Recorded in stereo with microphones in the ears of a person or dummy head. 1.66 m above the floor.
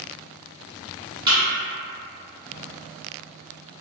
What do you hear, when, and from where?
1.3 s a thud: 25° right (ahead or behind), 1.6 m